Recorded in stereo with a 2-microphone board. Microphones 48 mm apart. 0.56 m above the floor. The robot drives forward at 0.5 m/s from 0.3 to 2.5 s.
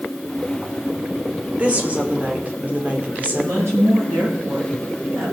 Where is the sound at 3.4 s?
80° right, 7.5 m.